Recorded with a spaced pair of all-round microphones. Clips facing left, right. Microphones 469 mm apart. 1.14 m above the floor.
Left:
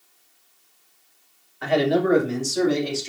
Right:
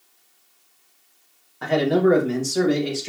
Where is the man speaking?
60° right (ahead or behind), 1.4 m; by 3.1 s 70° right (ahead or behind), 1.7 m.